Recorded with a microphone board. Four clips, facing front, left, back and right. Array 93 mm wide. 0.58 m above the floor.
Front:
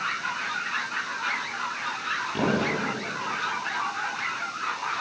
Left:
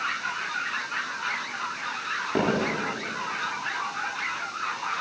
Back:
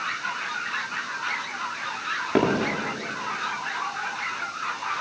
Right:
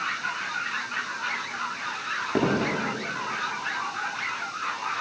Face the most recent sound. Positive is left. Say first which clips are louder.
# right 1 dB, back 4 dB
turn(degrees=180)